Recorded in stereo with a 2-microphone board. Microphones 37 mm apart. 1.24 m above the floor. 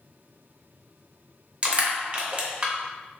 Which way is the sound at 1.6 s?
30° right (ahead or behind).